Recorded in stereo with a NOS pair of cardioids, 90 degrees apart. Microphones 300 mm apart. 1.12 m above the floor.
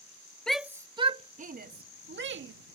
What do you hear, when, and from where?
0.5 s a shout: straight ahead; by 2.5 s 40° right